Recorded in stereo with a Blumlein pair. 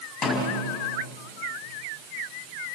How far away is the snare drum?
About 6.5 m.